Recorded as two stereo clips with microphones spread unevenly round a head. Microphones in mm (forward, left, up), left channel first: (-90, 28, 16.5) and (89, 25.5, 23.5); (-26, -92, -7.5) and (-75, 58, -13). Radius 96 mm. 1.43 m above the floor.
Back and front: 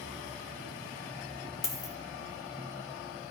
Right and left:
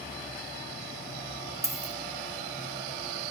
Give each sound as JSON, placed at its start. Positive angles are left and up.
{"t": 1.6, "sound": "a dropped coin", "azimuth_deg": 135, "distance_m": 1.1}